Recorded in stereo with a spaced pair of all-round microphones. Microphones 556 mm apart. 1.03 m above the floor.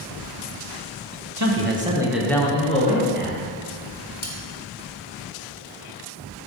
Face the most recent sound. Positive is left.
turn(degrees=80)